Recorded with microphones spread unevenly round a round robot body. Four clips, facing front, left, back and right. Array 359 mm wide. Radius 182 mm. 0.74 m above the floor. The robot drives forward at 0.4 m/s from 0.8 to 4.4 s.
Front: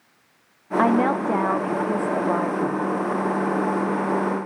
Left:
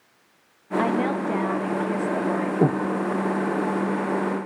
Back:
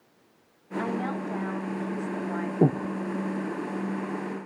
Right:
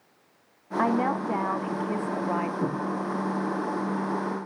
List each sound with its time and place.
0.8 s a woman speaking: straight ahead, 1.6 m; by 2.5 s 5° right, 1.0 m
2.6 s breathing: 135° left, 0.5 m; by 2.9 s 140° left, 0.6 m